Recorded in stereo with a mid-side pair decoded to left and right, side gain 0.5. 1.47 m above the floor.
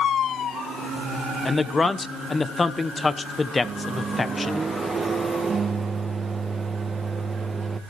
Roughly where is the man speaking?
Ahead left.